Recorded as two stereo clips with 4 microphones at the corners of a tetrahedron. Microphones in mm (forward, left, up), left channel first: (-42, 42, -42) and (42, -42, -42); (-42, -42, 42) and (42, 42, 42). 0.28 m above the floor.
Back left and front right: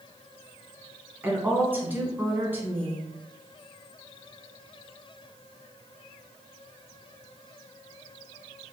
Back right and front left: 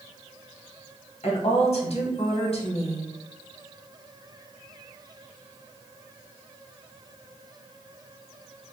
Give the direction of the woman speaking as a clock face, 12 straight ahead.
4 o'clock.